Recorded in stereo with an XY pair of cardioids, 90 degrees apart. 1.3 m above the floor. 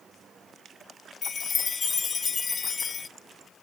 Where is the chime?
45° left, 0.6 m.